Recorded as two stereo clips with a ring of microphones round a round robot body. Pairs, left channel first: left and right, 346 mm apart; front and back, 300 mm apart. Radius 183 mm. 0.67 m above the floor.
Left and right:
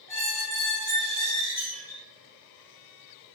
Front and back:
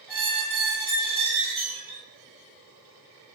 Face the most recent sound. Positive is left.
turn(degrees=-175)